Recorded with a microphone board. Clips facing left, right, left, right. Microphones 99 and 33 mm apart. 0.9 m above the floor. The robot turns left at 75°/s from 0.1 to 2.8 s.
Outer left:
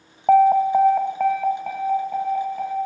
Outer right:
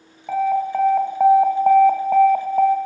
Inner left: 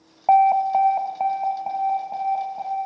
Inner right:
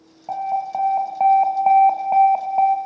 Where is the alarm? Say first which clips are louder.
Outer left 6 dB, inner left 8 dB; 55° left, 0.6 m; by 2.8 s 130° right, 0.6 m.